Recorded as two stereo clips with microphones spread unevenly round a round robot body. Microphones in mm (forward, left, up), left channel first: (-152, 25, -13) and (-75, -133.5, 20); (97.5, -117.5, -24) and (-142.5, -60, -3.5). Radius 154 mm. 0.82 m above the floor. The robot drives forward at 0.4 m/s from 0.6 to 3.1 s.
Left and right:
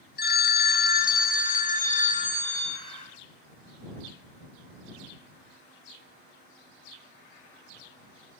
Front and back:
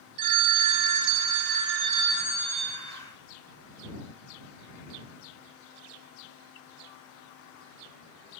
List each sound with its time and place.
0.2 s a phone ringing: 155° left, 0.8 m; by 2.8 s 165° left, 1.6 m